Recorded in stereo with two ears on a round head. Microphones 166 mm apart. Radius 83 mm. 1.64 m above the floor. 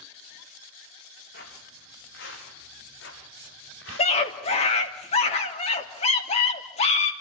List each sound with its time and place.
1.3 s footsteps: 60° left (ahead or behind), 7 m; by 5.0 s 80° left, 8.5 m
4.0 s a scream: 35° left (ahead or behind), 3 m